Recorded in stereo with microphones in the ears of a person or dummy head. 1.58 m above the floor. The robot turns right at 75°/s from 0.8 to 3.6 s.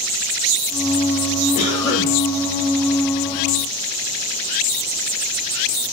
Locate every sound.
1.6 s a cough: 145° left, 2 m; by 2.1 s 170° right, 2 m